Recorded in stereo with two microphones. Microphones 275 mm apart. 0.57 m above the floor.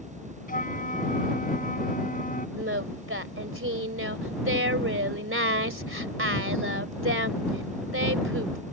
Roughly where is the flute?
Left.